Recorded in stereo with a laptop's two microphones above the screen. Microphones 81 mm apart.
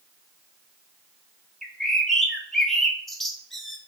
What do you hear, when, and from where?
1.6 s a bird: 5° left (ahead or behind), 0.7 m